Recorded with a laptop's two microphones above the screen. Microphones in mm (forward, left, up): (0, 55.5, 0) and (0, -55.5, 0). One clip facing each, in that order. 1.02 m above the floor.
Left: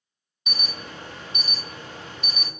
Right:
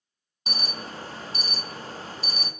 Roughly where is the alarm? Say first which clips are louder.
Right 2 dB; right.